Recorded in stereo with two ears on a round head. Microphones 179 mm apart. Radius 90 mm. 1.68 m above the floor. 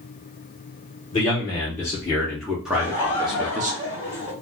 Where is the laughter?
15° left (ahead or behind), 2 m.